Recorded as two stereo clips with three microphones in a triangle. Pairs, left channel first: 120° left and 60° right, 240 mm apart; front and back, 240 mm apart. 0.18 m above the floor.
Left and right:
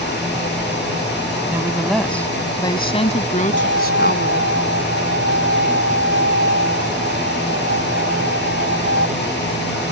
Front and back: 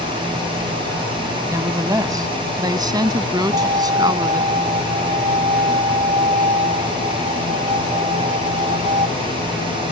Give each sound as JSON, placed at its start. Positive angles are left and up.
{"t": 1.5, "sound": "a woman speaking", "azimuth_deg": -125}
{"t": 3.5, "sound": "a violin", "azimuth_deg": 120}